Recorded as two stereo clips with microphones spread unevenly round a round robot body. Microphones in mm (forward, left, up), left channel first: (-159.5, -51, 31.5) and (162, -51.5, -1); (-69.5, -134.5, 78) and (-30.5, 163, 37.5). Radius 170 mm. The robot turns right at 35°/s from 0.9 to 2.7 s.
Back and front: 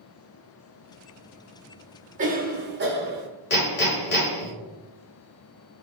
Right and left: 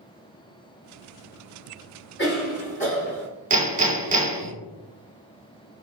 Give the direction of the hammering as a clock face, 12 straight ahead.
8 o'clock.